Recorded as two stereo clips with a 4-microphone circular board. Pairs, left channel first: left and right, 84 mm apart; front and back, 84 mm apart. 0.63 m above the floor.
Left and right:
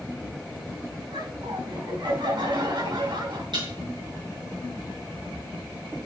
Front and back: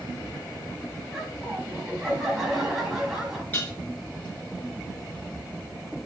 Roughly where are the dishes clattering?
Right.